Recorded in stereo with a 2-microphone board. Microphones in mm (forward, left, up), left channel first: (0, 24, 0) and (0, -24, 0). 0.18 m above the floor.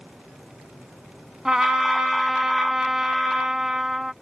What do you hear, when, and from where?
1.4 s a trumpet: 15° right (ahead or behind)